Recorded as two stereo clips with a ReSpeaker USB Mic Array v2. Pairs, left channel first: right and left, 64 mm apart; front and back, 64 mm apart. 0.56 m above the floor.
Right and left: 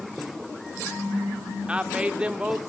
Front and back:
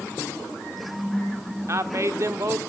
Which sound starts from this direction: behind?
A woman speaking, at 1.7 s.